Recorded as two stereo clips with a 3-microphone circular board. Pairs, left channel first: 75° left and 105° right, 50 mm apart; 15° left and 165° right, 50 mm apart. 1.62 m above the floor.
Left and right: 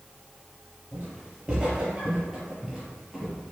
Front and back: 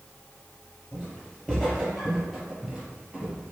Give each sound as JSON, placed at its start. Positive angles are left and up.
{"t": 0.9, "sound": "footsteps", "azimuth_deg": -45, "distance_m": 1.8}